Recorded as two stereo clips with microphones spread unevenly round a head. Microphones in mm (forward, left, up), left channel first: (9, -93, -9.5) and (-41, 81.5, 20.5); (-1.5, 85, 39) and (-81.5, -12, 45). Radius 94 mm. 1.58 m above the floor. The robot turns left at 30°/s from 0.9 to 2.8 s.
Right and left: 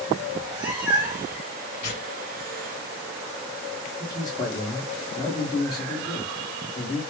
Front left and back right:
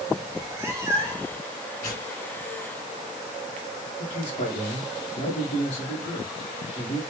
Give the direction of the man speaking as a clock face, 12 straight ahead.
12 o'clock.